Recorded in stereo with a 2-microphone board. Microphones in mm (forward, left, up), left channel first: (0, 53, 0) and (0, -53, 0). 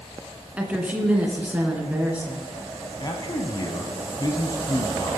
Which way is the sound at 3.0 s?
40° left (ahead or behind).